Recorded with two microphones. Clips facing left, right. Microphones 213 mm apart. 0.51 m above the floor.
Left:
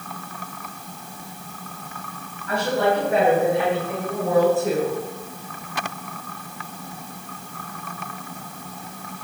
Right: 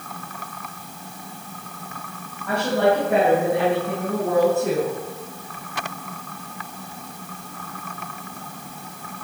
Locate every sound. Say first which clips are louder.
2.5 s a woman speaking: right 2 dB; 70° right (ahead or behind), 3.5 m